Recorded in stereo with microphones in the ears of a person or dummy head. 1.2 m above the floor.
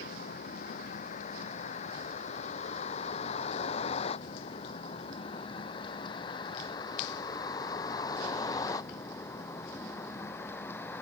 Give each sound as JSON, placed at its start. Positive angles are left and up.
{"t": 0.0, "sound": "a vehicle", "side_deg": 50}